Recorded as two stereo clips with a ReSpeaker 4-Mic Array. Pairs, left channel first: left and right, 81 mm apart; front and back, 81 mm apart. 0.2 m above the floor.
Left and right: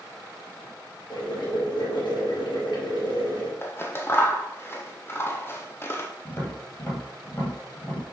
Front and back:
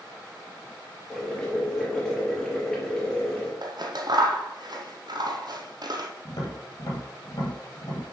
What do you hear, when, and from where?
1.1 s boiling: 80° left, 3.5 m
3.6 s scissors: 150° left, 1.1 m
6.2 s tapping: 30° left, 3.5 m